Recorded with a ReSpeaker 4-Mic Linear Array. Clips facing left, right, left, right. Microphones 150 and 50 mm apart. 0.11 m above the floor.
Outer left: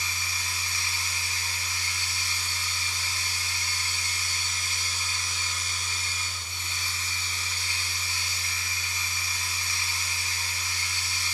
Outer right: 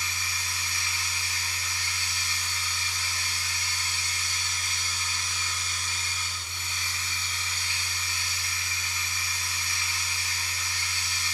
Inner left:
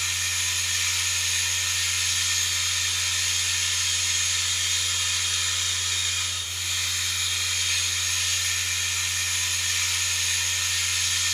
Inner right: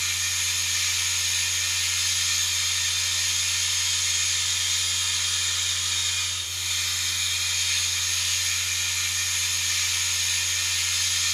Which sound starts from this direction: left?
Running water, at 0.0 s.